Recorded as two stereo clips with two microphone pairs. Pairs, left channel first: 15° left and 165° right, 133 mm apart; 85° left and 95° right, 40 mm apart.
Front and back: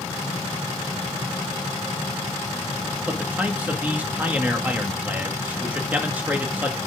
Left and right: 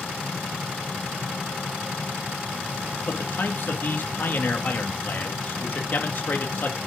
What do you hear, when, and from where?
3.0 s a man speaking: 120° left, 2 m